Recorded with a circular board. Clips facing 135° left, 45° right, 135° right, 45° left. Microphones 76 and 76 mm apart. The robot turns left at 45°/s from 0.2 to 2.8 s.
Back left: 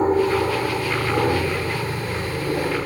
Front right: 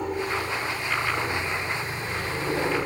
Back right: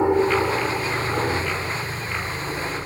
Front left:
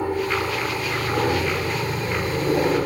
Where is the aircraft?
170° left; by 2.9 s 50° left.